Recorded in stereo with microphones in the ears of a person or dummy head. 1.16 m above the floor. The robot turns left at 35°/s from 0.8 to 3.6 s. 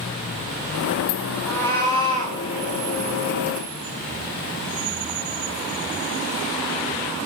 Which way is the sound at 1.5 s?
170° left.